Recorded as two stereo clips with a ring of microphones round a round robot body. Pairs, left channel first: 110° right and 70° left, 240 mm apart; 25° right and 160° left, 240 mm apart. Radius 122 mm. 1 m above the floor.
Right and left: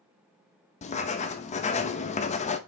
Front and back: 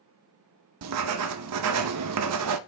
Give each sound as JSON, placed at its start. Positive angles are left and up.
{"t": 0.8, "sound": "writing", "azimuth_deg": -175, "distance_m": 0.6}